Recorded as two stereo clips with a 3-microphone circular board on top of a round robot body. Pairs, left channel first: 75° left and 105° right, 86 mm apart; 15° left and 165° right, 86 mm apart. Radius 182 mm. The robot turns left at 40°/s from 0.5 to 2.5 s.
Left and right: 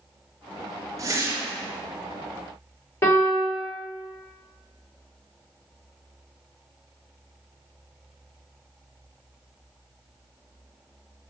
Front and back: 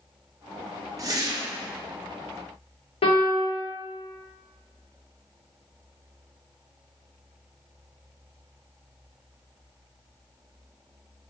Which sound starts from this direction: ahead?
A piano, at 3.0 s.